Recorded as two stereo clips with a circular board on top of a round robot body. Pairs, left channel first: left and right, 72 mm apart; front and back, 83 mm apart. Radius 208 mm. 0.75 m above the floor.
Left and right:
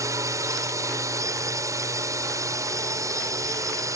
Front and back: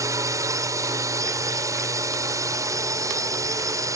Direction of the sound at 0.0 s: 130° right.